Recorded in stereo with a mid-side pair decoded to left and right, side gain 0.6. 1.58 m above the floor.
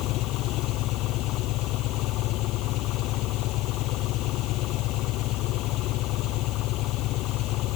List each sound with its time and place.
0.0 s an engine running: 65° left